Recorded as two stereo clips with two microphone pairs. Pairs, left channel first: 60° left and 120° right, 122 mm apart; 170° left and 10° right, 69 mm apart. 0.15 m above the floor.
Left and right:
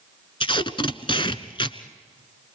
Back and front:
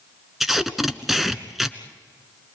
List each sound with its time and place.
0.4 s tape being pulled: 75° left, 1.0 m